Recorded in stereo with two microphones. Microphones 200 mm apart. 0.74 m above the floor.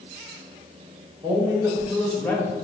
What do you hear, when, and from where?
1.2 s a man speaking: 25° right (ahead or behind), 1.2 m; by 2.5 s 20° left (ahead or behind), 1.0 m